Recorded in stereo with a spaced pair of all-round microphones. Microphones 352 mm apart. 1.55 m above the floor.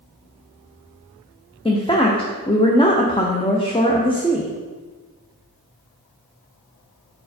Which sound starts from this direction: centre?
A woman speaking, at 1.6 s.